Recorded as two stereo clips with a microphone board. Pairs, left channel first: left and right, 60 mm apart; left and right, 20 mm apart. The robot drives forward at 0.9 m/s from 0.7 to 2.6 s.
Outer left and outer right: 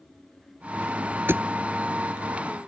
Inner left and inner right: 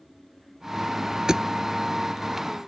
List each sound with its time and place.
1.3 s a thud: 40° right (ahead or behind); by 1.4 s 35° right (ahead or behind)